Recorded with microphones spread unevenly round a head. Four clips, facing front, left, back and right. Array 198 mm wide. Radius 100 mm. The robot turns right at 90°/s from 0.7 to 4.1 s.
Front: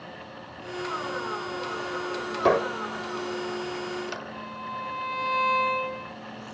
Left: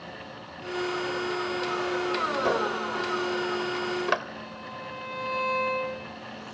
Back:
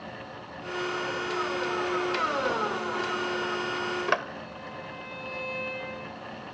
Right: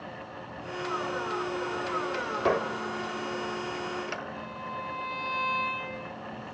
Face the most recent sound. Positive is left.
turn(degrees=-5)